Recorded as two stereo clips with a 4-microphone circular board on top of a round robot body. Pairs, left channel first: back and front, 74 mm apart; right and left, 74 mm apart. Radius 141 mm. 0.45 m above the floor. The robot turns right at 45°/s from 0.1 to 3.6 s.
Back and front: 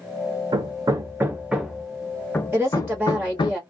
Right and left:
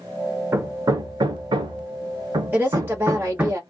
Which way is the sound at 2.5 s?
45° left.